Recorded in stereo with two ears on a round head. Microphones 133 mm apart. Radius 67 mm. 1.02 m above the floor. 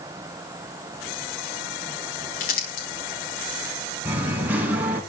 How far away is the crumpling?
About 9 m.